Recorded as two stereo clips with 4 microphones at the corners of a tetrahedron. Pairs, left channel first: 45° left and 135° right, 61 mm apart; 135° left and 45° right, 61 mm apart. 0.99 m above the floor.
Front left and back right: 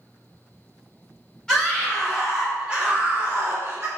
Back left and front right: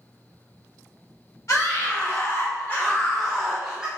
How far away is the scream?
About 1.0 m.